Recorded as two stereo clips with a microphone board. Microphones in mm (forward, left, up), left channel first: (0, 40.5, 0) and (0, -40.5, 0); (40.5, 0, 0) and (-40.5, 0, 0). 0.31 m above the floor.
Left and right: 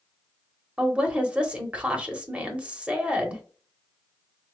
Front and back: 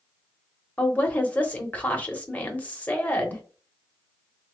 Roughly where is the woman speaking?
Ahead right.